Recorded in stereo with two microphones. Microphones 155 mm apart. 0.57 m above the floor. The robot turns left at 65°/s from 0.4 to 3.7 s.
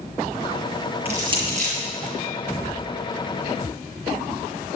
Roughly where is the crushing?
Centre.